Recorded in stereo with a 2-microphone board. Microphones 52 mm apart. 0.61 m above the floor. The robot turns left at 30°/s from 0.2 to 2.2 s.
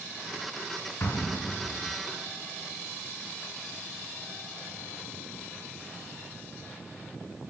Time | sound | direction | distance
1.0 | an explosion | 60° left (ahead or behind) | 2.5 m